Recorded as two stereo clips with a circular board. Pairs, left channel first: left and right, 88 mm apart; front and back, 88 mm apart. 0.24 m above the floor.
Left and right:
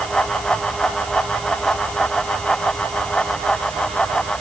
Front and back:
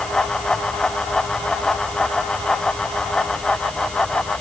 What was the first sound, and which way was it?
Only background noise.